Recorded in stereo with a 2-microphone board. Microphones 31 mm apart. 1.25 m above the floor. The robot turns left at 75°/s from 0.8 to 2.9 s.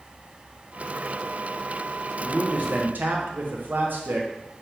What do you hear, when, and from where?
2.2 s a man speaking: 30° right, 0.7 m; by 4.3 s 80° right, 0.7 m